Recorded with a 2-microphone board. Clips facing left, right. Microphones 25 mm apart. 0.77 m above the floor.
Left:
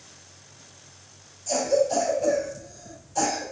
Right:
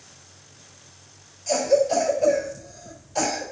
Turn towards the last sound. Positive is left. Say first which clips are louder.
# right 3 dB
turn(degrees=-55)  # may be behind; listen again after turning